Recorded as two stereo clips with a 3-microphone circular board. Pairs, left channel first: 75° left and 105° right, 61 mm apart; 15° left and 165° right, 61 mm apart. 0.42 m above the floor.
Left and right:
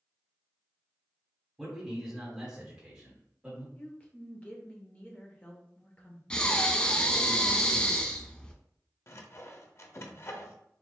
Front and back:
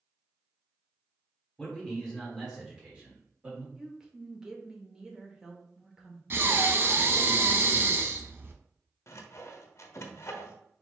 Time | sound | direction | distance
1.6 | a man speaking | 40° right | 1.4 m
3.8 | a woman speaking | 125° left | 0.9 m
6.3 | breathing | 145° left | 0.5 m
9.1 | sawing | 40° left | 0.5 m